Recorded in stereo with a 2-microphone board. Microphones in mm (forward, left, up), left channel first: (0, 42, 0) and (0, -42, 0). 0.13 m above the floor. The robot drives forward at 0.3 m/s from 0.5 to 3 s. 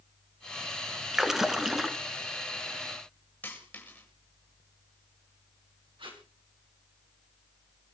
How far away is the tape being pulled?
About 5 m.